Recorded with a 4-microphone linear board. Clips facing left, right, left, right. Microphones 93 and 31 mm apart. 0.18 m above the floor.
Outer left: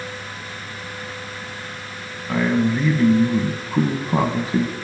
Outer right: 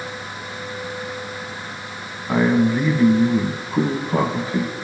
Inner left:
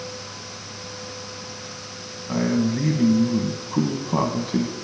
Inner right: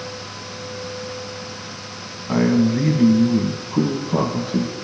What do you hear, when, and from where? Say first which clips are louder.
2.3 s a man speaking: outer right 2 dB, inner right 5 dB; 20° right (ahead or behind), 1.2 m; by 4.8 s 25° left (ahead or behind), 1.3 m